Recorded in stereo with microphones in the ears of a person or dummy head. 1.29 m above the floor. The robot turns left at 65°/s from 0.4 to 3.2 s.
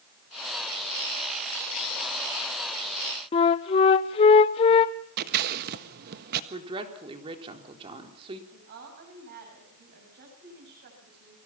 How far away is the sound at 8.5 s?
About 8 m.